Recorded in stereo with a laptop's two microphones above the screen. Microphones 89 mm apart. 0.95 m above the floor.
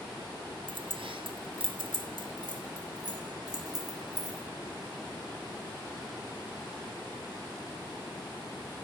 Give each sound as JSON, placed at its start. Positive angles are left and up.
{"t": 0.7, "sound": "keys jangling", "side_deg": -70, "distance_m": 0.9}